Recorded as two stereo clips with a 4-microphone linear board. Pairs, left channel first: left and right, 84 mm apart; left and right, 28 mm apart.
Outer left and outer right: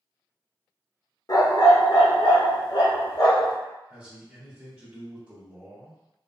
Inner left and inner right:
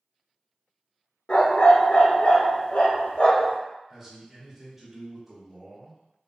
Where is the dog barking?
50° left (ahead or behind), 0.6 m; by 3.6 s 55° left (ahead or behind), 1.6 m.